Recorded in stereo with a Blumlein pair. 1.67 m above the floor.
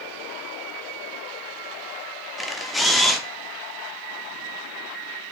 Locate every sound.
2.4 s a camera shutter: 5° left, 0.8 m